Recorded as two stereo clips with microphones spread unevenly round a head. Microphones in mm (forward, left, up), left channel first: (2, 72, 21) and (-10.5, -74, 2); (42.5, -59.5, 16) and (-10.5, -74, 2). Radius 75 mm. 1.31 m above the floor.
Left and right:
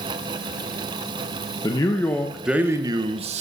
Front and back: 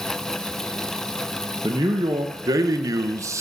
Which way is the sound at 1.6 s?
150° left.